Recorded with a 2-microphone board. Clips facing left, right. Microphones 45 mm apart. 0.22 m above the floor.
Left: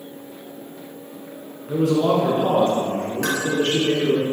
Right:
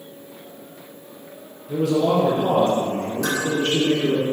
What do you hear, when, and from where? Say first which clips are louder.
1.7 s a man speaking: left 1 dB; 60° left (ahead or behind), 2.5 m; by 4.2 s 40° left (ahead or behind), 3 m
3.2 s dishes clattering: even; 55° left (ahead or behind), 2.5 m